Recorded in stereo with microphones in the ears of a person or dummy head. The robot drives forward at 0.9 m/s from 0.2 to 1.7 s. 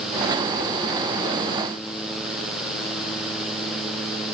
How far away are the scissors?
I don't hear scissors.